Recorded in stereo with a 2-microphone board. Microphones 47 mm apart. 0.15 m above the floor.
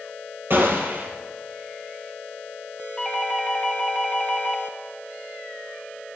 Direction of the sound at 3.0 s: 10° left (ahead or behind).